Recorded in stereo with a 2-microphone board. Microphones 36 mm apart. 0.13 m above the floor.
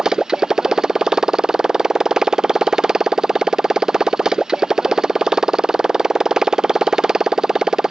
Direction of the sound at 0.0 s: 15° right (ahead or behind).